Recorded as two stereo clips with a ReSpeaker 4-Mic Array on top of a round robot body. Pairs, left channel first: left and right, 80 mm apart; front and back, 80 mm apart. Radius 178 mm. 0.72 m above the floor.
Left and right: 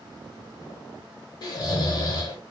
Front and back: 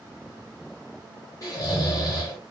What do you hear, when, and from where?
1.4 s snoring: 50° left, 0.7 m